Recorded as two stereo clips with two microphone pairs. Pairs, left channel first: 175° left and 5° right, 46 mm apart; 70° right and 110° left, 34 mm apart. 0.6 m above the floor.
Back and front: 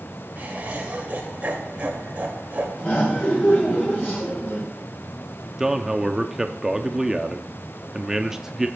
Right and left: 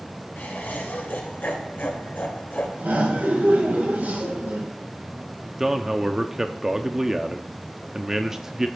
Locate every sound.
0.4 s laughter: 60° right, 2 m
2.8 s laughter: 135° left, 3.5 m
5.6 s a man speaking: 55° left, 0.6 m